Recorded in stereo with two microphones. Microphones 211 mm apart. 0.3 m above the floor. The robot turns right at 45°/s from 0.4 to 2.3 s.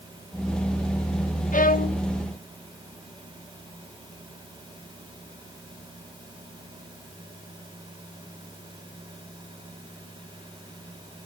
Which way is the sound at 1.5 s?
40° left (ahead or behind).